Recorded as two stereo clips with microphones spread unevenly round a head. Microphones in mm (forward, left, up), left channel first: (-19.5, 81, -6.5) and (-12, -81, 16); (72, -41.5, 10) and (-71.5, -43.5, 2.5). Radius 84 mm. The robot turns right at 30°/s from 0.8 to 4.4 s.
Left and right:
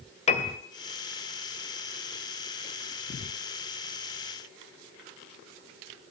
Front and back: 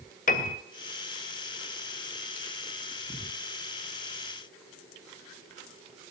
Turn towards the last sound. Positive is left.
turn(degrees=145)